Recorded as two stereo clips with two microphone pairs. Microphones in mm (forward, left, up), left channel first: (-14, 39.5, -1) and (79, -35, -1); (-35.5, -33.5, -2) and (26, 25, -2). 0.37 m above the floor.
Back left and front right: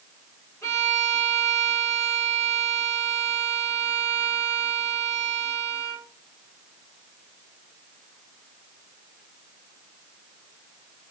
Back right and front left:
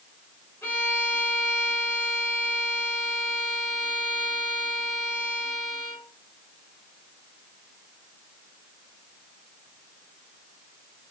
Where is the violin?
175° right, 1.8 m.